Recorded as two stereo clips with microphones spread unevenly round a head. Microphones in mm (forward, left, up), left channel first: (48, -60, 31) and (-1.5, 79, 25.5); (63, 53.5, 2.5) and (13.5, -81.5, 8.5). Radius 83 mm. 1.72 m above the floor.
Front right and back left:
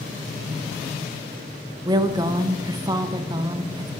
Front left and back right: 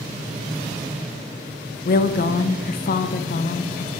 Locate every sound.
1.9 s a woman speaking: 45° left, 0.5 m